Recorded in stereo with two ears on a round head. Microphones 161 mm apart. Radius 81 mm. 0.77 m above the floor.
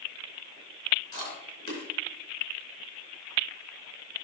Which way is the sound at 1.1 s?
25° left (ahead or behind).